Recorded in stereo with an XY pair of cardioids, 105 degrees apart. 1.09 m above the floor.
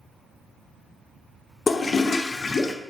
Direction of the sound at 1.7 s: 30° left.